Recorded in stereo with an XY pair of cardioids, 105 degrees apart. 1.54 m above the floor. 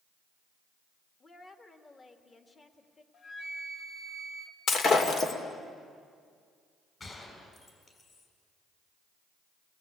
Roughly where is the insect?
I don't hear an insect.